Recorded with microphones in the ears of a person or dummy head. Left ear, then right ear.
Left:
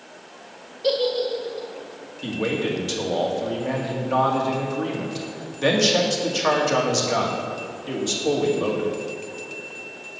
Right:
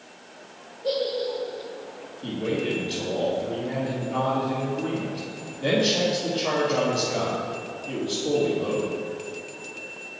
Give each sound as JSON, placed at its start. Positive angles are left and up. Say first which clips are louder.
{"t": 0.8, "sound": "a giggle", "louder": "left 4 dB", "side_deg": 55, "distance_m": 1.8}
{"t": 2.2, "sound": "a man speaking", "louder": "left 3 dB", "side_deg": 65, "distance_m": 1.9}